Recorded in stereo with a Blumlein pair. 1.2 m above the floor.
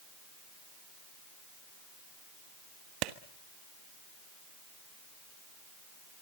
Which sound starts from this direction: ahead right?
A clap, at 3.0 s.